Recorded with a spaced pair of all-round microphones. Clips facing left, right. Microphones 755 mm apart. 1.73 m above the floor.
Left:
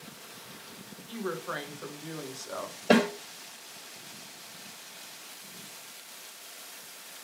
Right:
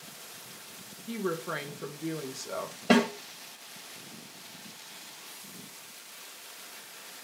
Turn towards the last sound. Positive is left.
turn(degrees=-35)  # may be behind; listen again after turning